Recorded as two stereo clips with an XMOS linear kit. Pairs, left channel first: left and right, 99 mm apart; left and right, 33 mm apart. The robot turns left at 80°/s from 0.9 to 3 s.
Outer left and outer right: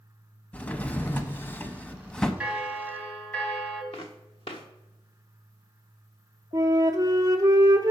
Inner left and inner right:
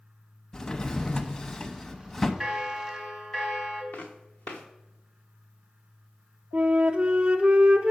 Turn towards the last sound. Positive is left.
turn(degrees=-40)  # may be behind; listen again after turning